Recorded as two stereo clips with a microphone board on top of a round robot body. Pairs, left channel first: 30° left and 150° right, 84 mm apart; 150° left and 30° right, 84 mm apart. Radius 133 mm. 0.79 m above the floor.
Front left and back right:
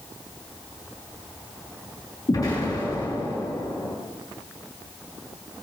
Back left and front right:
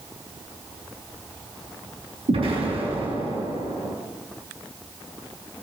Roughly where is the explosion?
Ahead right.